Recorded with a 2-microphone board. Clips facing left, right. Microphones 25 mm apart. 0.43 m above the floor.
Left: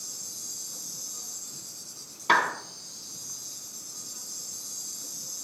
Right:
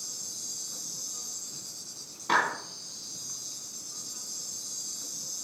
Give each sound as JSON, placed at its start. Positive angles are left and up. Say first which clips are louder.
{"t": 0.0, "sound": "an insect", "louder": "right 1 dB", "side_deg": -15, "distance_m": 1.6}
{"t": 2.3, "sound": "a clap", "louder": "left 3 dB", "side_deg": 40, "distance_m": 3.5}